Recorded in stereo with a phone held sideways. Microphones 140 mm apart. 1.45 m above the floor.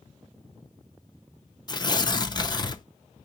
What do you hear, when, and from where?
1.7 s tearing paper: 30° left (ahead or behind), 0.5 m